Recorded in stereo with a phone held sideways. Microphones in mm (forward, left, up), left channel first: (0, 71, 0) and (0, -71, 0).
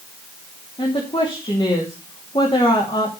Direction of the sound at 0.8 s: 40° left (ahead or behind).